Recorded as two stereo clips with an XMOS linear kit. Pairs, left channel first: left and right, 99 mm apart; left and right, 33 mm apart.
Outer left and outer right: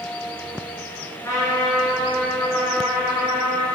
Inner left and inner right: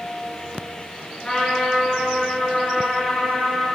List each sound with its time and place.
1.2 s a trumpet: 35° left (ahead or behind), 2 m